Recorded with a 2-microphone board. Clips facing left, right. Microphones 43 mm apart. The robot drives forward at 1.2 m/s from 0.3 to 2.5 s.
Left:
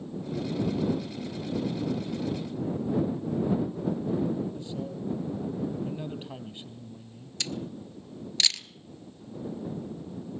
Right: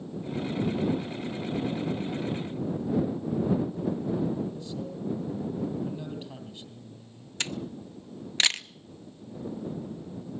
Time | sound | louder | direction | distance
4.5 | a man speaking | left 1 dB | 30° left (ahead or behind) | 3 m
7.4 | a camera shutter | right 1 dB | 35° right (ahead or behind) | 0.6 m